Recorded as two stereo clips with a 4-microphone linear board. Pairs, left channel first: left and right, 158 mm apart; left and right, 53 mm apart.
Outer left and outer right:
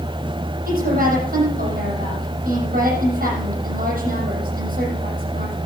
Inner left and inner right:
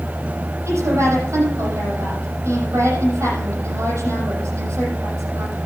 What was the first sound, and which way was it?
A woman speaking, 70° right (ahead or behind).